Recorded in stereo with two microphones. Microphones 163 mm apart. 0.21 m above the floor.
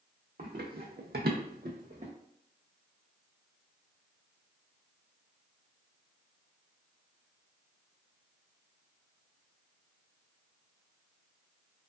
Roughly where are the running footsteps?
Right.